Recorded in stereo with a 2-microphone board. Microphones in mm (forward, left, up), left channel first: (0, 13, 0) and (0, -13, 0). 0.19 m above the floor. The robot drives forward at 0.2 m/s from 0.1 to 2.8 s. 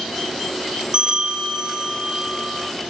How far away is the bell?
About 1.5 m.